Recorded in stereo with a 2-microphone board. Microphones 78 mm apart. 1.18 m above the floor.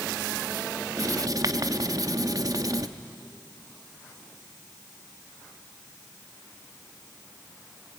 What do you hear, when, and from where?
1.0 s writing: 50° right (ahead or behind), 0.8 m